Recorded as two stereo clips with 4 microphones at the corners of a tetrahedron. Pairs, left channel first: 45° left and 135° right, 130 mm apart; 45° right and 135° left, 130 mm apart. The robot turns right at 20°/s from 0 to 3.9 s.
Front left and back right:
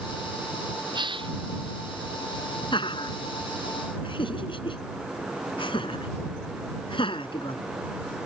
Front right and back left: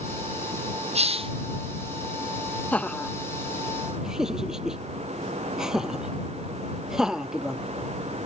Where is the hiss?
170° left; by 1.3 s straight behind.